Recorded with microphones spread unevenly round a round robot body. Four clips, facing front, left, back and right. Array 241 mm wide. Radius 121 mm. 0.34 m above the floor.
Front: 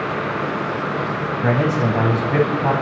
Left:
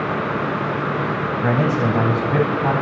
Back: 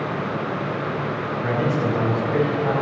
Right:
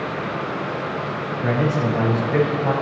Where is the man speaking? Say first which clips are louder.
Left 1 dB, front 4 dB; 45° left, 2.5 m.